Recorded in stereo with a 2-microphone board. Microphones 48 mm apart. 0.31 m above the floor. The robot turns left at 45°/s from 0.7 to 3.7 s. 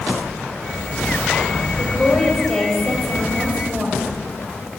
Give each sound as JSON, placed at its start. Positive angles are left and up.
{"t": 1.8, "sound": "a woman speaking", "azimuth_deg": 45, "distance_m": 1.5}